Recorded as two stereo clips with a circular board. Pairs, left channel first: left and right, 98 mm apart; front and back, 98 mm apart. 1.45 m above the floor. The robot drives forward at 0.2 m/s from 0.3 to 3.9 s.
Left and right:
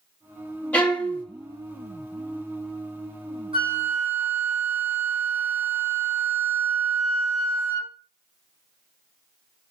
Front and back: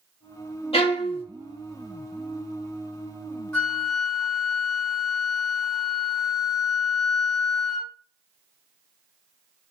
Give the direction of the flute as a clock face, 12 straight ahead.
3 o'clock.